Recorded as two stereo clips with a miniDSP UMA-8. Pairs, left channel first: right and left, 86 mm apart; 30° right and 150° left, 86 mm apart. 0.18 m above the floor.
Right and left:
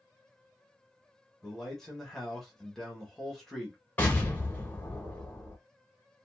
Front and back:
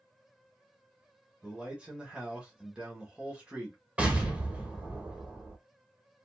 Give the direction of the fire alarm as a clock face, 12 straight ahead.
I don't hear a fire alarm.